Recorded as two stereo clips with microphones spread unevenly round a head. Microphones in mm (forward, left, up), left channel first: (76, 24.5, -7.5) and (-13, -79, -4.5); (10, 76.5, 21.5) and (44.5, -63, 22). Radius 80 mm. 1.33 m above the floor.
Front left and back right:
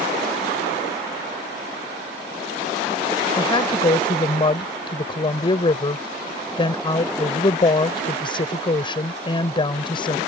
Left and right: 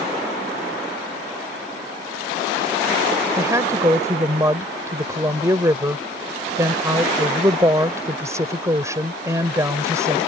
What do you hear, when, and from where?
3.4 s a woman speaking: 5° right